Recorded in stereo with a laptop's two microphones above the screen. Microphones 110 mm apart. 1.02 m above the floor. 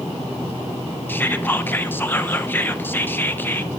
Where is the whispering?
15° left (ahead or behind), 0.8 m.